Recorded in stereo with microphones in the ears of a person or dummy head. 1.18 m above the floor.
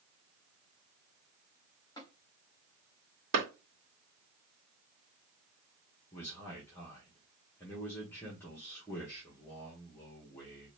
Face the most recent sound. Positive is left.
turn(degrees=10)  # may be behind; listen again after turning